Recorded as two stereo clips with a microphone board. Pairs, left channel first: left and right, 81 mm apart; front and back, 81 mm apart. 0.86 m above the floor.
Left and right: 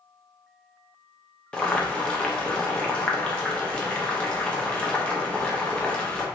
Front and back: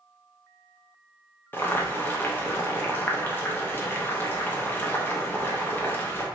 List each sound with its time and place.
1.5 s boiling: 30° left, 0.6 m